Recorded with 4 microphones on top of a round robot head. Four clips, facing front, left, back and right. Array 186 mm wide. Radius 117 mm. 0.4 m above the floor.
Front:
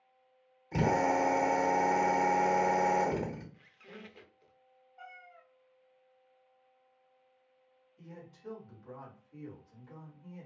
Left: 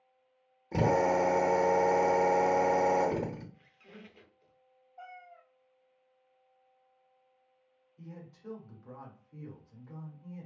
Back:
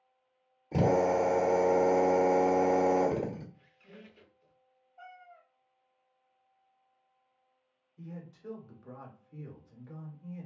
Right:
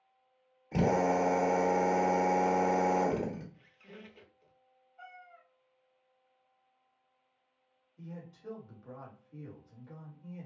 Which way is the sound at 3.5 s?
5° right.